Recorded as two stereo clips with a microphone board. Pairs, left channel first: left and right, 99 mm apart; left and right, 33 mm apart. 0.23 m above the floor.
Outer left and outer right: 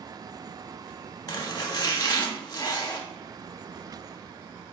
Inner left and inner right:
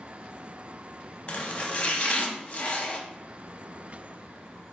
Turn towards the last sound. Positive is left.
turn(degrees=45)  # may be behind; listen again after turning